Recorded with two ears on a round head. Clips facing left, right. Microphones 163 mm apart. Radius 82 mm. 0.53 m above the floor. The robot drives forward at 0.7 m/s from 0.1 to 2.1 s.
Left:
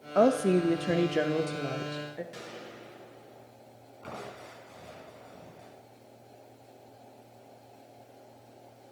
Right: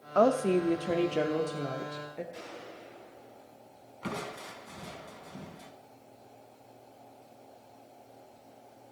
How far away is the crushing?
About 2.5 m.